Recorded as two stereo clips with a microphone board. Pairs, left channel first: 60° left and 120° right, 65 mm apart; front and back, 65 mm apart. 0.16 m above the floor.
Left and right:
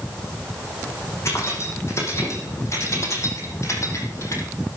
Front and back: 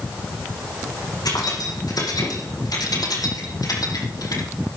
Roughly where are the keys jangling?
Ahead.